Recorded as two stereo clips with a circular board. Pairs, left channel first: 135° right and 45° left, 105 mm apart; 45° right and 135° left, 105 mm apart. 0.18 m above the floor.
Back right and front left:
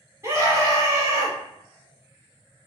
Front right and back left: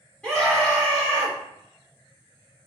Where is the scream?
30° left, 1.7 m.